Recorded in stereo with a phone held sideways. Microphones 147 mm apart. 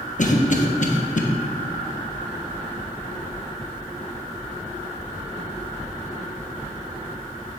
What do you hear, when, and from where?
0.2 s a cough: 55° left (ahead or behind), 1.1 m